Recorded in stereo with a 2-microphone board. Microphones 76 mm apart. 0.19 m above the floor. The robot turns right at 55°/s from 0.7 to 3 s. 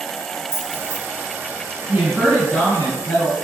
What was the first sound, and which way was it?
Keys jangling, 30° left (ahead or behind).